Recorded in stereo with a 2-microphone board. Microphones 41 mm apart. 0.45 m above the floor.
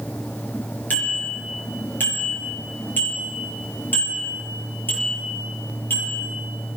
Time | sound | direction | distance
0.9 | a bicycle bell | 45° left (ahead or behind) | 6 m